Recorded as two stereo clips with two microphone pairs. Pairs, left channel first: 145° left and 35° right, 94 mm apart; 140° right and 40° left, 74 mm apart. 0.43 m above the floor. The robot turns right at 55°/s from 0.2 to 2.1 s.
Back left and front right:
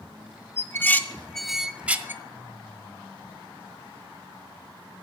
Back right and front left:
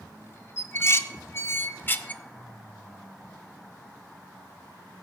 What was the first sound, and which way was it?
Dishes clattering, 175° right.